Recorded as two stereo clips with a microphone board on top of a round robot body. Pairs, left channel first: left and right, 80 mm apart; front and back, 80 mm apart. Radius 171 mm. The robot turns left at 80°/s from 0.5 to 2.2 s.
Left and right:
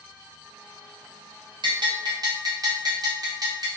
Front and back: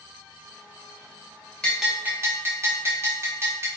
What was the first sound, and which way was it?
A bell, 80° right.